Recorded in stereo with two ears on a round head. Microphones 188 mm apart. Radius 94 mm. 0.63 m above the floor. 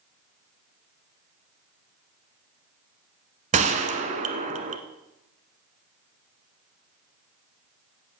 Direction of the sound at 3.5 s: 35° right (ahead or behind).